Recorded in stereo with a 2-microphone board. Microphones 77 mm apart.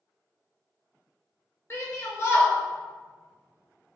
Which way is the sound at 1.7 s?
35° left (ahead or behind).